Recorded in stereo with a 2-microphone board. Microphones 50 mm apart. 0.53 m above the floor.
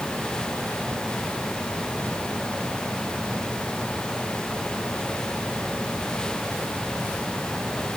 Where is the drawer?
I don't hear a drawer.